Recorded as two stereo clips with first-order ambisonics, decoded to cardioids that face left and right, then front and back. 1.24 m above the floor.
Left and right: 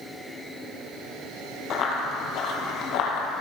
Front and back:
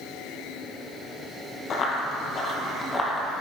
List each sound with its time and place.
1.7 s running footsteps: 50° left, 1.8 m; by 3.3 s 80° left, 2 m